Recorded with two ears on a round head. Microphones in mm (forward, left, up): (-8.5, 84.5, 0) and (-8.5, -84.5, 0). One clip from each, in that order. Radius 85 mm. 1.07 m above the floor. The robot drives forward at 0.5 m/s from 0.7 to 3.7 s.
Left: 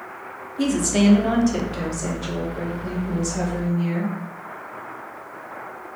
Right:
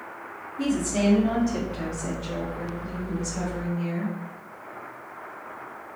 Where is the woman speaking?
40° left (ahead or behind), 0.7 m; by 4.1 s 15° left (ahead or behind), 1.7 m.